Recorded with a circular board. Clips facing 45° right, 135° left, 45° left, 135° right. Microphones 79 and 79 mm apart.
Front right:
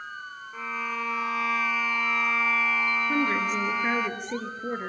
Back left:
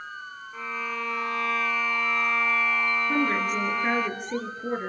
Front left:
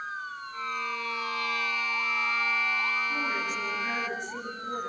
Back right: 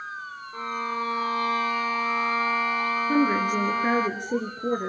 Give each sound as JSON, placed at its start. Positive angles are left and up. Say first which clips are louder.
{"t": 0.5, "sound": "a violin", "louder": "even, back right 5 dB", "azimuth_deg": -130, "distance_m": 0.9}
{"t": 3.1, "sound": "a woman speaking", "louder": "back left 1 dB, back right 9 dB", "azimuth_deg": -135, "distance_m": 2.5}